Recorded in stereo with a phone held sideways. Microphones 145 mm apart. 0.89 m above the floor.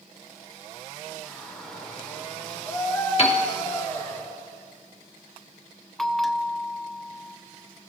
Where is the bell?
Centre (ahead or behind), 0.5 m.